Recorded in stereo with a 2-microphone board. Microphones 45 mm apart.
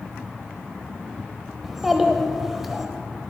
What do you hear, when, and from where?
1.6 s a child speaking: 5° right (ahead or behind), 0.9 m